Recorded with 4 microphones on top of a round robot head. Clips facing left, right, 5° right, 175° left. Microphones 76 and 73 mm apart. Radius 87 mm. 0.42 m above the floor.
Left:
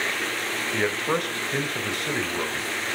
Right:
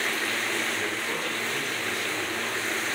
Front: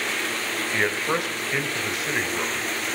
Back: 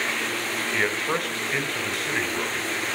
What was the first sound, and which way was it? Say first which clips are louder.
A man speaking: left 6 dB, front 2 dB; 75° left.